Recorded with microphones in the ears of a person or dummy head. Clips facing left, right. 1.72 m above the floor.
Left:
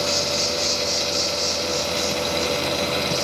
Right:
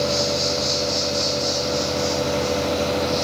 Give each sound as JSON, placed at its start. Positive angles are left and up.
{"t": 0.0, "sound": "an insect", "side_deg": 65, "distance_m": 2.5}